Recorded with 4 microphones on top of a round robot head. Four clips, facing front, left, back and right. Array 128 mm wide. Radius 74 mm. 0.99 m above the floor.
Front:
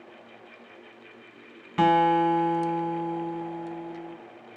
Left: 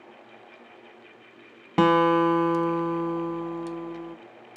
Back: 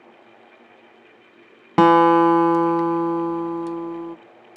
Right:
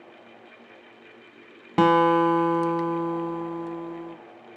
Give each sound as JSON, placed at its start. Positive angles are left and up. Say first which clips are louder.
{"t": 1.8, "sound": "a guitar", "louder": "right 1 dB, back 7 dB", "azimuth_deg": -175, "distance_m": 0.6}